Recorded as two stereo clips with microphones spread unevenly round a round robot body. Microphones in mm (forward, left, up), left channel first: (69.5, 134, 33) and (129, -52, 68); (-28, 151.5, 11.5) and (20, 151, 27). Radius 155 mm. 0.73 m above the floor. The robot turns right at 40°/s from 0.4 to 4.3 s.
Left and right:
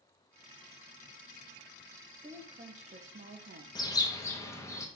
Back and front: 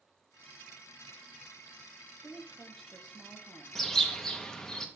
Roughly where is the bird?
Behind left.